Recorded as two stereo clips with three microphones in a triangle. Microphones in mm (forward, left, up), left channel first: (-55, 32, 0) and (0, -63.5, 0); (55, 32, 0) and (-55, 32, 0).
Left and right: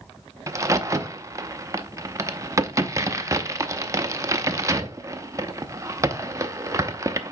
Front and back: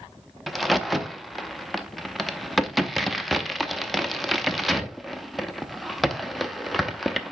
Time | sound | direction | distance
0.5 | a crack | 90° right | 0.6 m